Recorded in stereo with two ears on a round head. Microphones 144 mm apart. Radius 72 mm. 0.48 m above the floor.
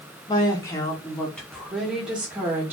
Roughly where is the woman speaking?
Left.